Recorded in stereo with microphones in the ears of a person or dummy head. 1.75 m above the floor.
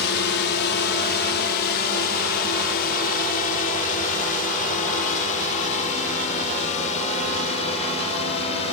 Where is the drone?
55° left (ahead or behind); by 8.7 s 30° left (ahead or behind).